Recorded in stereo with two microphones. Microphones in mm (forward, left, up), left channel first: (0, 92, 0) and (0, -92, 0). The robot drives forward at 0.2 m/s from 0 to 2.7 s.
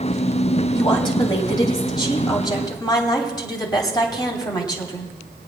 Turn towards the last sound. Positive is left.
turn(degrees=25)  # may be behind; listen again after turning